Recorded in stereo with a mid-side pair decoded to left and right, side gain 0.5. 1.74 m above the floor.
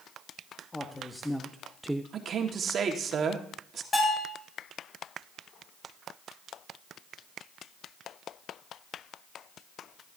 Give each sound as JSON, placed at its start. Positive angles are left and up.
{"t": 0.7, "sound": "a man speaking", "azimuth_deg": 15, "distance_m": 1.4}
{"t": 2.1, "sound": "a man speaking", "azimuth_deg": -50, "distance_m": 1.8}
{"t": 3.9, "sound": "a bell", "azimuth_deg": 35, "distance_m": 8.0}